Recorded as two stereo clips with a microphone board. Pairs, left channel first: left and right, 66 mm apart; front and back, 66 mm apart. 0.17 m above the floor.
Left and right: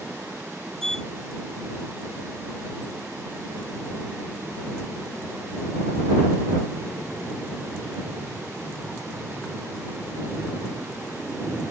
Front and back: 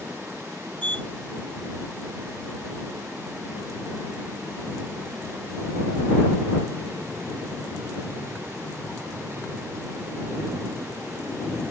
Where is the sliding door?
25° left.